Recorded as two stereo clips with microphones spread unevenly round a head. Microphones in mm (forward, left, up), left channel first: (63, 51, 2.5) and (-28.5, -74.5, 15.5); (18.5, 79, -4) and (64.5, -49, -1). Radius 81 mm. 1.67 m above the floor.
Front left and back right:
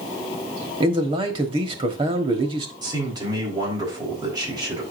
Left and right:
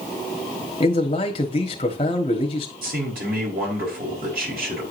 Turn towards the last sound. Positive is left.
turn(degrees=-60)